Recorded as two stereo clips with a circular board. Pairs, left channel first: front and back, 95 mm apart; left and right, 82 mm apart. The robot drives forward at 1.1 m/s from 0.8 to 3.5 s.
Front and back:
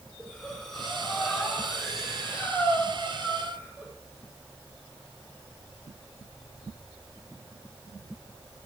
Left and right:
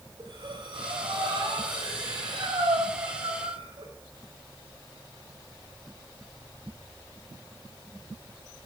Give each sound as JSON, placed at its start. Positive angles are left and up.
{"t": 0.2, "sound": "breathing", "azimuth_deg": -85, "distance_m": 7.5}